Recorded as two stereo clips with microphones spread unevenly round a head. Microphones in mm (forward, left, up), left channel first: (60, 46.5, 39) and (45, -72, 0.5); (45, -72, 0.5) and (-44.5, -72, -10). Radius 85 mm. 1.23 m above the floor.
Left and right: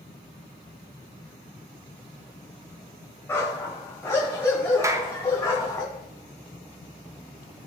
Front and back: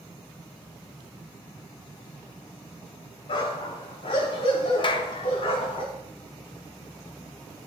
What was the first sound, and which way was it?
A dog barking, 20° left.